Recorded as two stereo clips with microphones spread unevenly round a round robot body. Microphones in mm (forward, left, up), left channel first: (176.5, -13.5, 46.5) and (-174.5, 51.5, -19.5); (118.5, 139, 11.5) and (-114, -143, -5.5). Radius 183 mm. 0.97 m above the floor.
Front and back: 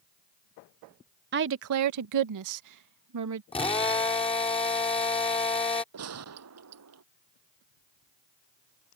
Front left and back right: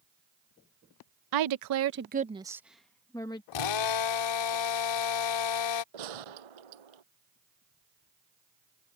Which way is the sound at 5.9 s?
140° right.